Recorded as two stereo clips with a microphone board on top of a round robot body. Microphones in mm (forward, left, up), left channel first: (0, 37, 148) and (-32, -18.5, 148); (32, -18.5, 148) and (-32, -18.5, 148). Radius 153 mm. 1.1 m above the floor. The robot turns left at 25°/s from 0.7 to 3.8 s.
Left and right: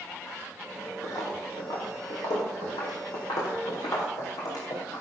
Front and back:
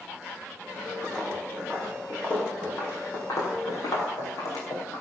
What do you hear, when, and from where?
1.0 s footsteps: 90° left, 3 m; by 5.0 s 35° left, 4.5 m